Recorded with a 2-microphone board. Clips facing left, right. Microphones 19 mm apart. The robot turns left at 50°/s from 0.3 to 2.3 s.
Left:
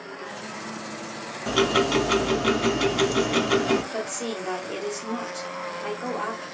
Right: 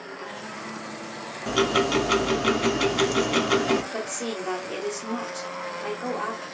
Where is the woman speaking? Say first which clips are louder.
Even; 5° right (ahead or behind), 1.6 m.